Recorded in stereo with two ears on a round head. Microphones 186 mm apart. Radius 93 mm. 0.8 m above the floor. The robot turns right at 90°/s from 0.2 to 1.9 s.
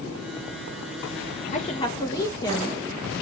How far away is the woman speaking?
About 0.7 m.